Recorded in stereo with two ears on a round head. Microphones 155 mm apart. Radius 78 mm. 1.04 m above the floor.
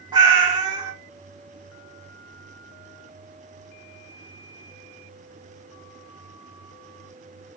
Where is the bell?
I don't hear a bell.